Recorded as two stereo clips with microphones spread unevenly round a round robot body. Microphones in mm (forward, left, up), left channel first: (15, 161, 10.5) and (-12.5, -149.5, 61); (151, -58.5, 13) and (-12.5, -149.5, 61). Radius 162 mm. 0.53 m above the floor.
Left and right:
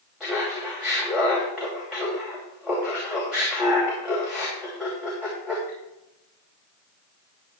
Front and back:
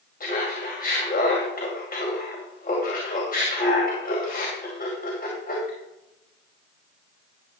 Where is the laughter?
5° right, 2.5 m.